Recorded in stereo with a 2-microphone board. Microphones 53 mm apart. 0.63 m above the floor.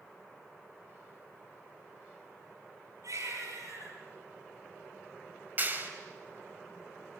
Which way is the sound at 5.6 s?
35° right (ahead or behind).